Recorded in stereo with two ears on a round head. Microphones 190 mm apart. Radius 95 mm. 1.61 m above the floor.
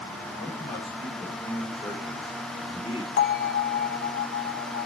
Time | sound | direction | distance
0.4 | a man speaking | 20° left (ahead or behind) | 6 m
3.2 | a bell | 50° left (ahead or behind) | 0.6 m